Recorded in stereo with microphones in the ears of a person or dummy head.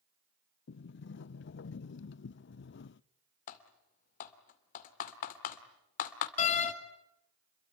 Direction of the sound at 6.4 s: 50° left (ahead or behind).